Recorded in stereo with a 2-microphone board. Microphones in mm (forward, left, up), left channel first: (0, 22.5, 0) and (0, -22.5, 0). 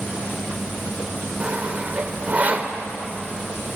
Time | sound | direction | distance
1.4 | sawing | 30° right (ahead or behind) | 2 m